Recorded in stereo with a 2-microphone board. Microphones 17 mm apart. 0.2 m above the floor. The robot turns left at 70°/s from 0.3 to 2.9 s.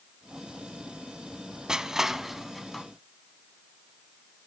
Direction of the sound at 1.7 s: 35° right (ahead or behind).